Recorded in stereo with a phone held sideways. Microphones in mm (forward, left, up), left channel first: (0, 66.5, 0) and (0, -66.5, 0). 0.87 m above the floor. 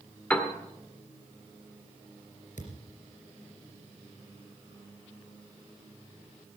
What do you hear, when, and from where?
0.3 s a piano: 10° left (ahead or behind), 1.8 m
2.6 s a thud: 75° left (ahead or behind), 3 m